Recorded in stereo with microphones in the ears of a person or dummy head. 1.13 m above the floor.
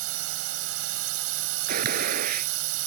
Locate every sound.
0.0 s a drone: 85° right
1.7 s a gunshot: 55° right (ahead or behind)